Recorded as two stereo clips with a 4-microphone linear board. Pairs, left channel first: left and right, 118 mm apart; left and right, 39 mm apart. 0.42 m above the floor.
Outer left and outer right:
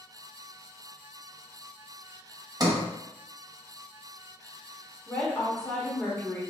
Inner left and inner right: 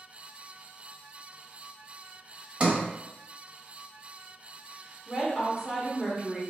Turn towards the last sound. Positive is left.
turn(degrees=5)  # may be behind; listen again after turning